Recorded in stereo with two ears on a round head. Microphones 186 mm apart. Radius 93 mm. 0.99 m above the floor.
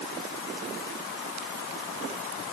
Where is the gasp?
No gasp in this recording.